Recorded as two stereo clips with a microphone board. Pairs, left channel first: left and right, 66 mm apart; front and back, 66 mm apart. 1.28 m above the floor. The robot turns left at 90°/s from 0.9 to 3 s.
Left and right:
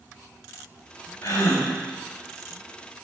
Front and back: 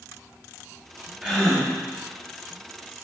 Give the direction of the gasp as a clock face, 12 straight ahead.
8 o'clock.